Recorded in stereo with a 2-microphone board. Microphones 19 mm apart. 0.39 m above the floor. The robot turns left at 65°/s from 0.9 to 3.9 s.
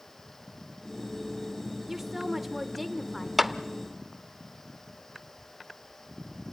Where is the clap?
5° right (ahead or behind), 0.6 m; by 3.5 s 10° right (ahead or behind), 0.6 m.